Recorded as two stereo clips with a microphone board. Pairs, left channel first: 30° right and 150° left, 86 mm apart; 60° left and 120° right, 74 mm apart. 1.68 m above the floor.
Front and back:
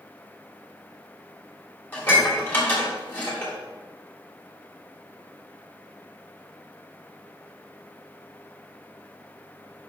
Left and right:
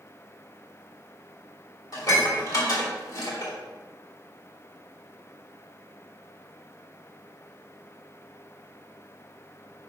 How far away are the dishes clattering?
About 3 m.